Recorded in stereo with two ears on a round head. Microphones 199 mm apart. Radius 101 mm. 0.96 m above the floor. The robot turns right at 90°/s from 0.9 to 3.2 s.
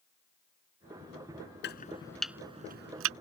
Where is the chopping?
55° left (ahead or behind); by 3.1 s 75° right (ahead or behind).